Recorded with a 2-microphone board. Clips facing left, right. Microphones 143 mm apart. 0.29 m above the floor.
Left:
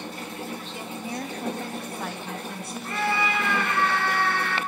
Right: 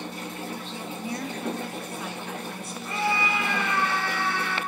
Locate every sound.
0.7 s a woman speaking: 10° left (ahead or behind), 1.3 m; by 3.8 s 70° left (ahead or behind), 4 m
2.8 s a scream: 60° left (ahead or behind), 3.5 m